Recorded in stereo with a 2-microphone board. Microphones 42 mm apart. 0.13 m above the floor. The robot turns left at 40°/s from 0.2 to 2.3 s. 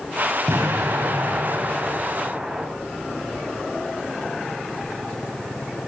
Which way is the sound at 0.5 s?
80° right.